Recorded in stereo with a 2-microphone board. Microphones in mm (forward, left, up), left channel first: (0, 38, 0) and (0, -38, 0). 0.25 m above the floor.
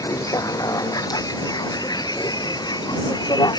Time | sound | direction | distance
0.0 | a vehicle | 50° left (ahead or behind) | ?